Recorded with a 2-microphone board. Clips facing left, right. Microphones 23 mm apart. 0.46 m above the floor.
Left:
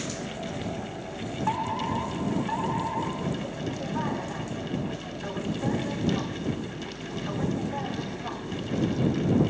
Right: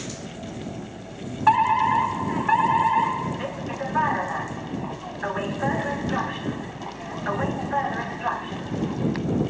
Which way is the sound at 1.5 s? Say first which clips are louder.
Right 11 dB; 55° right (ahead or behind).